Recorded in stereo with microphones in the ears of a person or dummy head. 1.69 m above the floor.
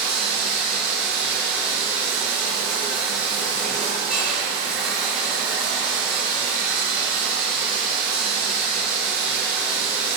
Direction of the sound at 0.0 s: 5° right (ahead or behind).